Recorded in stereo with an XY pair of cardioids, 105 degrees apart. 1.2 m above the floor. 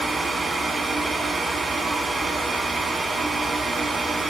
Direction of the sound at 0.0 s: 35° right.